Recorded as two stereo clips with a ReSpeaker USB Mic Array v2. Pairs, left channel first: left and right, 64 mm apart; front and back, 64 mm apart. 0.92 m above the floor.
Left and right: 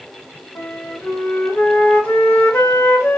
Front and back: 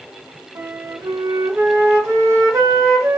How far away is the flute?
About 1.2 m.